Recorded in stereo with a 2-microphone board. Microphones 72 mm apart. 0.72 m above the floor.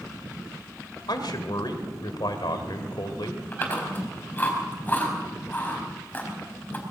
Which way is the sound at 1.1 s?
75° left (ahead or behind).